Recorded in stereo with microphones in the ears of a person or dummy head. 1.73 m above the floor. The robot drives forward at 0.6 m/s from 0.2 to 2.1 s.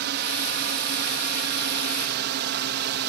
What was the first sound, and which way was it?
A drone, 55° right (ahead or behind).